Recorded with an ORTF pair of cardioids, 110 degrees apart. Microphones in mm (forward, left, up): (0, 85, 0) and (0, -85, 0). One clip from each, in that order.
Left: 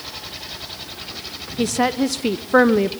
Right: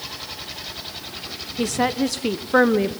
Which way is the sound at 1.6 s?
10° left.